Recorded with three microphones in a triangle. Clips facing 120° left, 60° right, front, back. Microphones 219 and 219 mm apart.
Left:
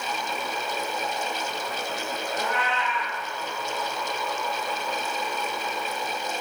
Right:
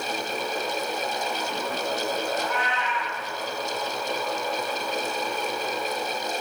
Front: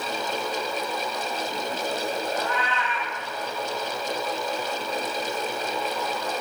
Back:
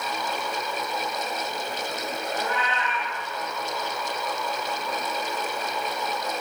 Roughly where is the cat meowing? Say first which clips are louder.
Even, front 1 dB; behind left.